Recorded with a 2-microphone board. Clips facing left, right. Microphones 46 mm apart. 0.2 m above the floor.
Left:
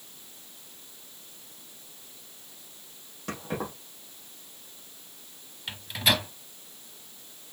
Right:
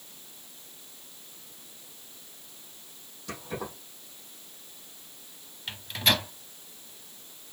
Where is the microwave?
5° left (ahead or behind), 0.7 m.